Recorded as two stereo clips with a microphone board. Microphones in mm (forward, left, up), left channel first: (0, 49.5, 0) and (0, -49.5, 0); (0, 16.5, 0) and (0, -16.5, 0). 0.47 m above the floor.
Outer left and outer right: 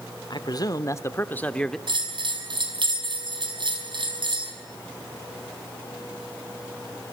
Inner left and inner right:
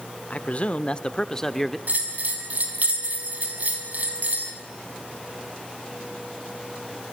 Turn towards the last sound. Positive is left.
turn(degrees=-55)  # may be behind; listen again after turning